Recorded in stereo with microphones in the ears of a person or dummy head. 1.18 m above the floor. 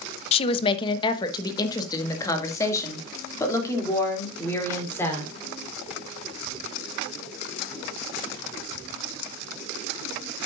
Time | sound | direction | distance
0.3 | a woman speaking | 35° left (ahead or behind) | 0.9 m